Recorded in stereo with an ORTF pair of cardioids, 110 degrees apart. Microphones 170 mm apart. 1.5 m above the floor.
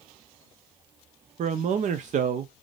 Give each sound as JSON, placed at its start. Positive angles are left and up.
{"t": 1.4, "sound": "a man speaking", "azimuth_deg": -50, "distance_m": 0.5}